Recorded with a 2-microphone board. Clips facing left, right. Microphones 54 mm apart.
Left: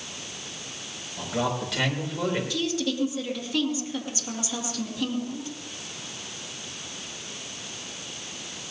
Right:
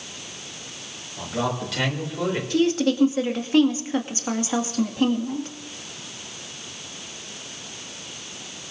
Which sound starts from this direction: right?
A woman speaking, at 2.5 s.